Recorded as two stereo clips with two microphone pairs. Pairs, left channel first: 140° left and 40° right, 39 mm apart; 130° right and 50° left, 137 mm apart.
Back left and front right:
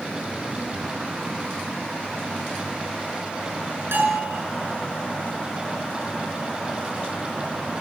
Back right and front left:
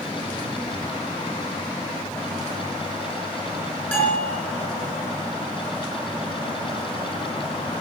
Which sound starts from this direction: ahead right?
A bell, at 3.9 s.